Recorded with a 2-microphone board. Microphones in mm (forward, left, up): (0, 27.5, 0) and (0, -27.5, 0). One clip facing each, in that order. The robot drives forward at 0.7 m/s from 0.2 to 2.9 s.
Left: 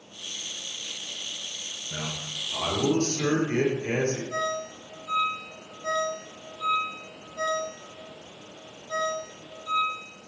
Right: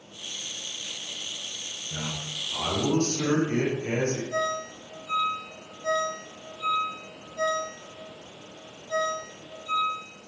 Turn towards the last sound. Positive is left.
turn(degrees=15)  # may be behind; listen again after turning